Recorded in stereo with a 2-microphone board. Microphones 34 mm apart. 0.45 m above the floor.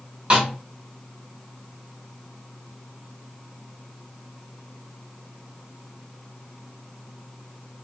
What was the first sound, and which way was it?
A snare drum, 30° right (ahead or behind).